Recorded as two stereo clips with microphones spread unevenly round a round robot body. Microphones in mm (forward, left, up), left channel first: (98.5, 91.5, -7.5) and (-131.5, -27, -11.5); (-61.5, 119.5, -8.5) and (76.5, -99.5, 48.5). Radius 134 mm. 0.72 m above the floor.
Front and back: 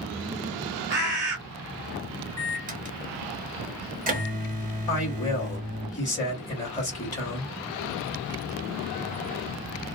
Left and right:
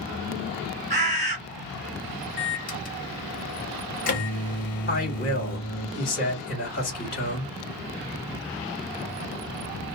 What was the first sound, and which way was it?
A bird, 125° right.